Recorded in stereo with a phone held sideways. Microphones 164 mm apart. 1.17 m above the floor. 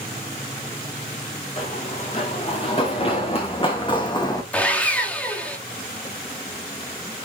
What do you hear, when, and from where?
1.6 s running footsteps: 45° left (ahead or behind), 5.5 m; by 4.4 s 25° left (ahead or behind), 2.5 m
4.5 s sawing: 10° left (ahead or behind), 2 m